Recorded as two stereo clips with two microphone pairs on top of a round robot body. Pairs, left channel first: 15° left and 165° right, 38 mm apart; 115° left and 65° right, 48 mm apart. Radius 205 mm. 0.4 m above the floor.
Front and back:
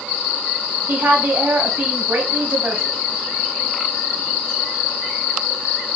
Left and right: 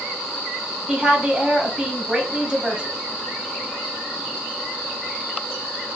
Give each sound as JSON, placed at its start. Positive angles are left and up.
{"t": 0.9, "sound": "a woman speaking", "azimuth_deg": -135, "distance_m": 2.0}